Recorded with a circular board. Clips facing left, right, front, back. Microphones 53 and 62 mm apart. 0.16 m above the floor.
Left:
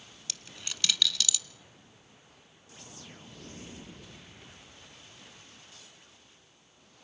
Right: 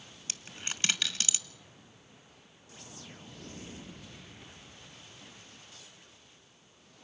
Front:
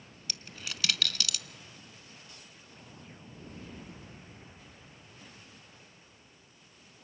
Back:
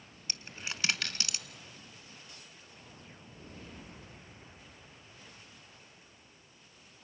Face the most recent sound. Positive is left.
turn(degrees=-130)